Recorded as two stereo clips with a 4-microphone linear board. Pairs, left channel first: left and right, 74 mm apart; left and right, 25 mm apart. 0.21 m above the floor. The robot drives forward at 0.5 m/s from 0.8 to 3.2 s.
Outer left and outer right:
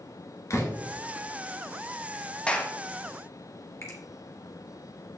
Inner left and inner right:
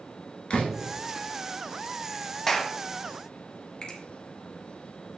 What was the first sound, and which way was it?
A door slam, 45° left (ahead or behind).